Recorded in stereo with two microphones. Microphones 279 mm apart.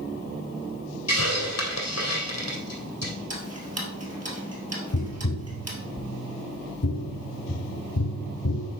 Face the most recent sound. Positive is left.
turn(degrees=75)  # may be behind; listen again after turning